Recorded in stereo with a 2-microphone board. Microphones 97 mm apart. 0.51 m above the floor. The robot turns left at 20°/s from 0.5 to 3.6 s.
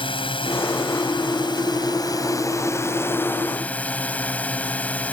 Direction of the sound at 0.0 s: 80° left.